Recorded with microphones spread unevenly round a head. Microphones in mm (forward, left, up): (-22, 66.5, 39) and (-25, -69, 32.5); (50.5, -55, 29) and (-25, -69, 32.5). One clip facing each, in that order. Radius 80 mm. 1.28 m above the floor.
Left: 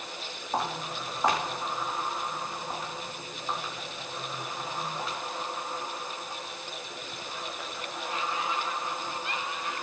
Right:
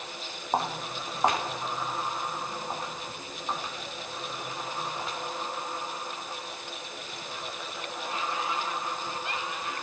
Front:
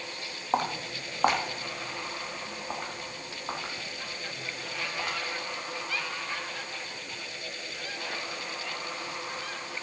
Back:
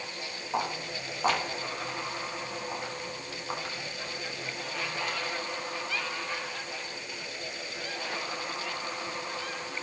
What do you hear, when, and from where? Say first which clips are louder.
0.5 s footsteps: right 2 dB, front 3 dB; 25° right, 2.5 m; by 5.2 s 5° right, 7 m